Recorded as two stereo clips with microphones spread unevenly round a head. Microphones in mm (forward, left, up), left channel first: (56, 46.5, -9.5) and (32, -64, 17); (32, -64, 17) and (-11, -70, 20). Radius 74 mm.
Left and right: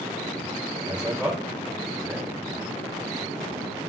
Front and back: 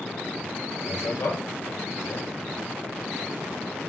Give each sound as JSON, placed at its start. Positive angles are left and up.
{"t": 0.9, "sound": "a man speaking", "azimuth_deg": -20, "distance_m": 3.5}